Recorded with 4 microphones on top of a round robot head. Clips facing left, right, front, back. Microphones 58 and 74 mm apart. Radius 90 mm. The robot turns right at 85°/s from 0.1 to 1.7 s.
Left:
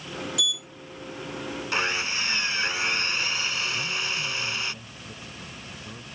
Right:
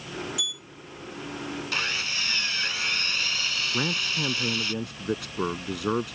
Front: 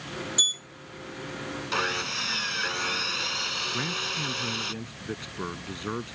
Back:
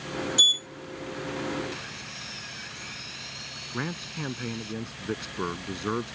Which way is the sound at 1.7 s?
25° left.